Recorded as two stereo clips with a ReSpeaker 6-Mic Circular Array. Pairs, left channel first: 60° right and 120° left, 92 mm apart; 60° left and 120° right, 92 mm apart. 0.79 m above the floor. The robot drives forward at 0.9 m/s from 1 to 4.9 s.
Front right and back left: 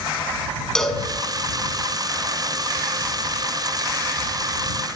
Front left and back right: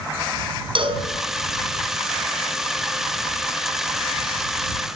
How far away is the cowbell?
About 5.5 m.